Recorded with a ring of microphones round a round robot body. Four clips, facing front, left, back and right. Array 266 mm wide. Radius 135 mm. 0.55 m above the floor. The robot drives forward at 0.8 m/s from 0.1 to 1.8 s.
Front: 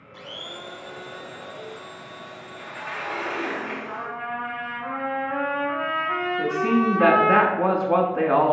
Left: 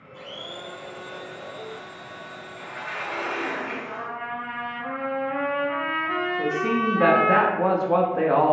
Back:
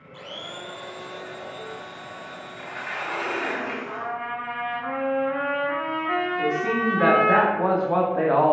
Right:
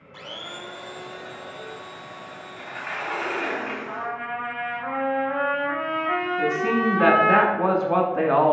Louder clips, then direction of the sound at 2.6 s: Right 1 dB, even; 130° right.